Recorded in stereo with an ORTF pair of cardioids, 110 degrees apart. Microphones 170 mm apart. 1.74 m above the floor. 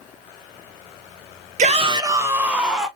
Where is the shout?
50° right, 0.5 m; by 2.9 s straight ahead, 1.2 m.